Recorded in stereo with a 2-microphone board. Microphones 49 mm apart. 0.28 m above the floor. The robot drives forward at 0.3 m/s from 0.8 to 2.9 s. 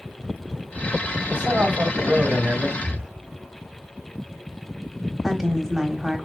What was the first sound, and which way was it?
A man speaking, 45° right (ahead or behind).